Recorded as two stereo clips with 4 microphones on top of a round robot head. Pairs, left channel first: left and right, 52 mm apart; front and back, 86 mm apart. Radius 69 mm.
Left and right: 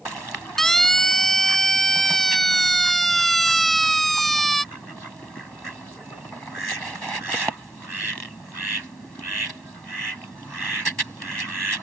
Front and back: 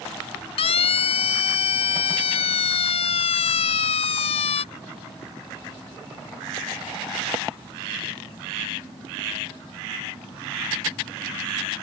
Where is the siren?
5° left.